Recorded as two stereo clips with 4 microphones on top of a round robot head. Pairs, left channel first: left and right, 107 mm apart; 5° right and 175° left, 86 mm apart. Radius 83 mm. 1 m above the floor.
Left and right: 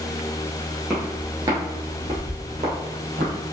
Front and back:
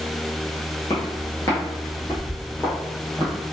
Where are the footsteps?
10° right, 1.0 m; by 3.3 s 95° right, 1.5 m.